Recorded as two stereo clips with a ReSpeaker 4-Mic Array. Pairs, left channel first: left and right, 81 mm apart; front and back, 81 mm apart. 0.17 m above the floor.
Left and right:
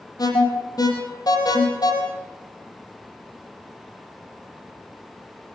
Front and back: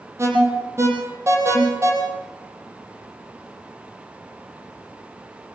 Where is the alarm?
125° left, 6.5 m.